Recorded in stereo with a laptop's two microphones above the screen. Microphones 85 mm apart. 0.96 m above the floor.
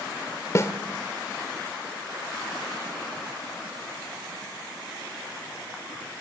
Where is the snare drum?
35° left (ahead or behind), 1.0 m.